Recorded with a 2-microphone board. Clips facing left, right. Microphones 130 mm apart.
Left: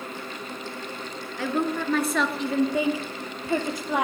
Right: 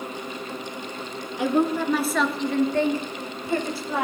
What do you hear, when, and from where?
1.4 s a woman speaking: 20° right (ahead or behind), 1.1 m; by 4.0 s 20° left (ahead or behind), 2.5 m